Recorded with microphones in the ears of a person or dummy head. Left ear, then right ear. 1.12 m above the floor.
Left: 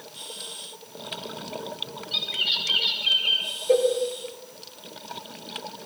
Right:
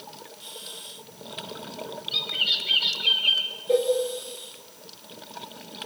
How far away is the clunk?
I don't hear a clunk.